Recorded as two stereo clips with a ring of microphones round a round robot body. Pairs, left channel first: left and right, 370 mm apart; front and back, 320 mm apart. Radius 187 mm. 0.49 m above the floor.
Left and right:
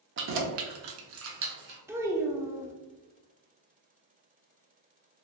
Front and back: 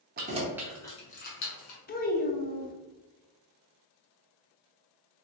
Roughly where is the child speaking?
Ahead.